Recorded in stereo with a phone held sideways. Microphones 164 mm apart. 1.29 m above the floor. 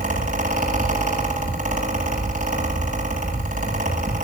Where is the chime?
I don't hear a chime.